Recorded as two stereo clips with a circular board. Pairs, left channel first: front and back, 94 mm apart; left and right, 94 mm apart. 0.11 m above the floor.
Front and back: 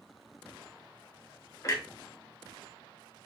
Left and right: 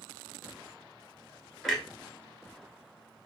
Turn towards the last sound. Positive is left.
turn(degrees=5)